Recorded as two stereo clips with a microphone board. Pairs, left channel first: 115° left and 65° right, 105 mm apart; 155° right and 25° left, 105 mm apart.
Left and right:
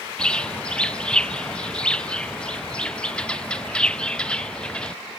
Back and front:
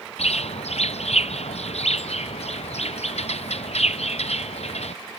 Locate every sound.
0.2 s a bird: 165° right